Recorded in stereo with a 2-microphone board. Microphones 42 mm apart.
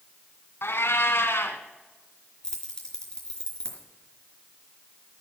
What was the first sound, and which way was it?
A cat meowing, 75° left (ahead or behind).